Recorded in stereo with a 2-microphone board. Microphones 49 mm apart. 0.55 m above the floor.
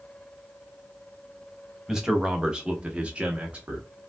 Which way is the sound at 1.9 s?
10° right (ahead or behind).